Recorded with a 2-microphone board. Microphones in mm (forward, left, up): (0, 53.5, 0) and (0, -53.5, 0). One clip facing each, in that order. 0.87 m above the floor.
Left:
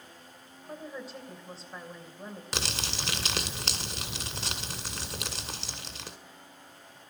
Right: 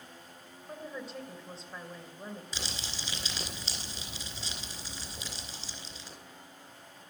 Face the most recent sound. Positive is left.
turn(degrees=90)